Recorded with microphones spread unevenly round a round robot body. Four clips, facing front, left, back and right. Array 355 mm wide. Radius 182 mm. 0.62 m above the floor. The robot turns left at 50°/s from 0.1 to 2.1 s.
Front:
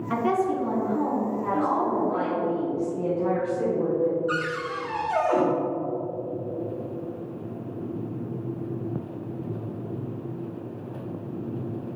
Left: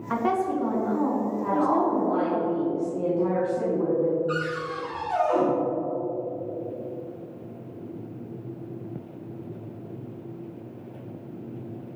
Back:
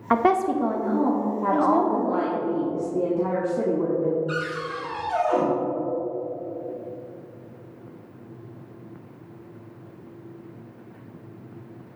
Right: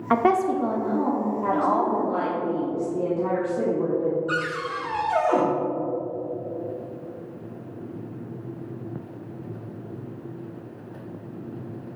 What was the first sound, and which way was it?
A woman speaking, 125° right.